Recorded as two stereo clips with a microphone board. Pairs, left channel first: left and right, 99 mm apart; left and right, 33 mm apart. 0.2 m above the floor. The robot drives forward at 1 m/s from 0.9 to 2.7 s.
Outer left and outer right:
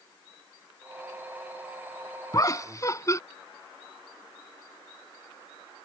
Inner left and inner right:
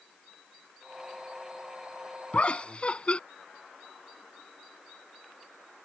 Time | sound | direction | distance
2.3 | laughter | 35° left (ahead or behind) | ?